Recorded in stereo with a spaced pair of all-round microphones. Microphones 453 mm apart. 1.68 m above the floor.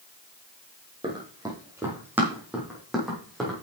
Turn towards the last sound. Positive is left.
turn(degrees=0)  # may be behind; listen again after turning